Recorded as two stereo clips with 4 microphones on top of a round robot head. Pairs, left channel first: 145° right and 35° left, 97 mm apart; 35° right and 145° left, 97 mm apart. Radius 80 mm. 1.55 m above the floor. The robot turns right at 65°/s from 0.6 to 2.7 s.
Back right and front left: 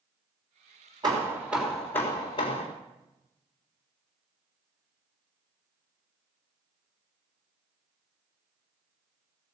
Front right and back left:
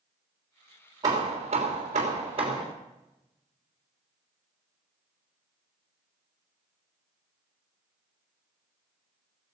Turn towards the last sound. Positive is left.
turn(degrees=-165)